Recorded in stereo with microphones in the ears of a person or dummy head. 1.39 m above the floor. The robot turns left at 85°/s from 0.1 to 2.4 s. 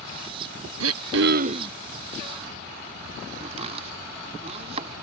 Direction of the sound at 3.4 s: 40° right (ahead or behind).